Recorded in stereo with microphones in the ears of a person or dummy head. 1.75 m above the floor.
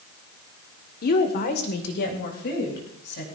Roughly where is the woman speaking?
Left.